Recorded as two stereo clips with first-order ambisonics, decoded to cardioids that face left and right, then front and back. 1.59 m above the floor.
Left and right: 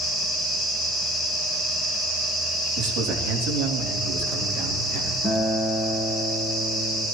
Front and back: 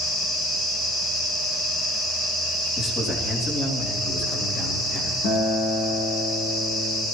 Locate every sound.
2.8 s a man speaking: 70° right, 3.5 m; by 5.1 s 60° right, 4 m
5.2 s a guitar: 20° left, 5 m